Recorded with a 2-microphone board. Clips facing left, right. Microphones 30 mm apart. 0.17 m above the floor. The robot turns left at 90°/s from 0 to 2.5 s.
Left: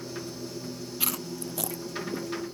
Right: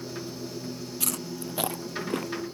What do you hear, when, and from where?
1.0 s chewing: 20° left (ahead or behind); by 2.3 s 80° right